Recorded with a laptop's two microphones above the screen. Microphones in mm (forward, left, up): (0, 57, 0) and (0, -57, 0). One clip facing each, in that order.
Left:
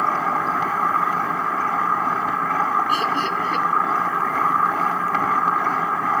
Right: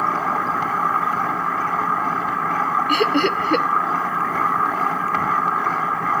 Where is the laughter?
65° right (ahead or behind), 0.7 m.